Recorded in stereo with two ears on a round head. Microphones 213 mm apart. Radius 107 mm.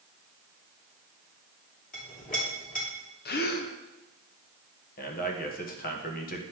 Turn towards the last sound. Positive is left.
turn(degrees=40)  # may be behind; listen again after turning